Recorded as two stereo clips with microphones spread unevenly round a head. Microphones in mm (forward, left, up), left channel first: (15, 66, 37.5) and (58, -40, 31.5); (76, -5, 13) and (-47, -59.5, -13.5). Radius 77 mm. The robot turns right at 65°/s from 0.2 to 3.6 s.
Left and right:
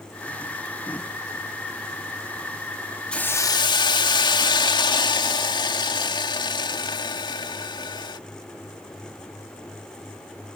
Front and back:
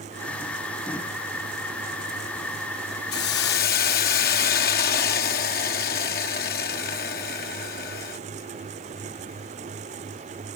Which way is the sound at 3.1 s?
30° left.